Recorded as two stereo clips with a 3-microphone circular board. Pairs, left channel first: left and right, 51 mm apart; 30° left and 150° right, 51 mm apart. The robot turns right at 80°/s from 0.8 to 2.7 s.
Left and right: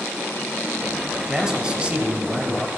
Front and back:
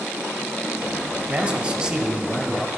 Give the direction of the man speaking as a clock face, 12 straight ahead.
5 o'clock.